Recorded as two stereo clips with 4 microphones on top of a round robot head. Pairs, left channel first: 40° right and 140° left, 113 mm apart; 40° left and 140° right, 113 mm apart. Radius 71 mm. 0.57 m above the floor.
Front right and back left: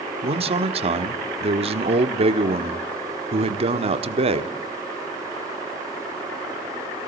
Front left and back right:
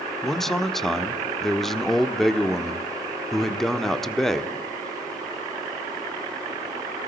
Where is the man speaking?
125° left, 1.2 m.